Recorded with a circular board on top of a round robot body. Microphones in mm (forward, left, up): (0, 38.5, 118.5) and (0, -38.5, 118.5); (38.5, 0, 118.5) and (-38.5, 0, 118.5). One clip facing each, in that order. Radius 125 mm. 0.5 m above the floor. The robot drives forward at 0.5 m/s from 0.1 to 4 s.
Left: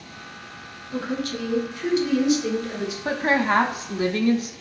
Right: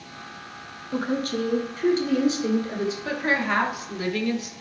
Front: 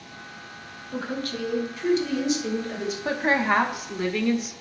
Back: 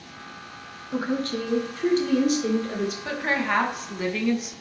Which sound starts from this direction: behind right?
A woman speaking, at 0.9 s.